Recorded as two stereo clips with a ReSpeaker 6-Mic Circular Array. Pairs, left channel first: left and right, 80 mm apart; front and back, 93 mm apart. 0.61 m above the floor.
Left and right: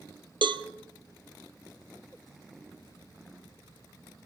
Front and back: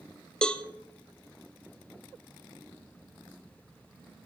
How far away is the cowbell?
About 0.9 m.